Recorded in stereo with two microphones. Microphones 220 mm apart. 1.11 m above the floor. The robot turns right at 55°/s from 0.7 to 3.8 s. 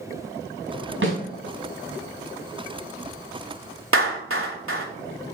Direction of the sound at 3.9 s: 70° right (ahead or behind).